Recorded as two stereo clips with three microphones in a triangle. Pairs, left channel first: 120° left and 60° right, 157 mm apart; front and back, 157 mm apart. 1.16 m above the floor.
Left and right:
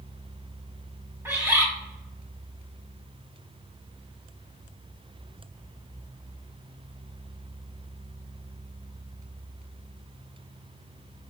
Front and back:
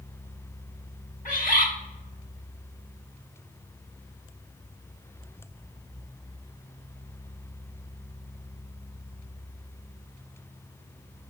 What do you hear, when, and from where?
1.2 s a bird: 10° left, 1.0 m